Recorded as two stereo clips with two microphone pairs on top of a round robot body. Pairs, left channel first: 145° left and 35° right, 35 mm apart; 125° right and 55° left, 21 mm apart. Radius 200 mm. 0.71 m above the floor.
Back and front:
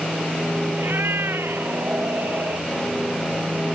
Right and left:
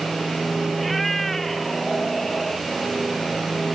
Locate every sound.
0.8 s a cat meowing: 40° right; by 2.7 s 50° right